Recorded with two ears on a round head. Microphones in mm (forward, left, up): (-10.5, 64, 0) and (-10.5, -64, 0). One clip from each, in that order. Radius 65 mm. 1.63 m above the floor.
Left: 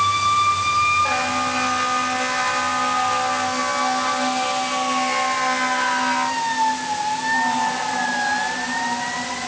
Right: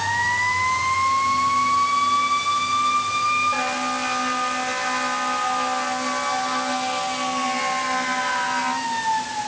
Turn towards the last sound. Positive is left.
No sound to turn to.